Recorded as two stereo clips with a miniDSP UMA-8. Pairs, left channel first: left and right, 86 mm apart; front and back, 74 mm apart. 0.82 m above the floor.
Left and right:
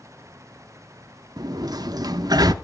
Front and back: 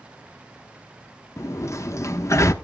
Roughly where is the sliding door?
Ahead right.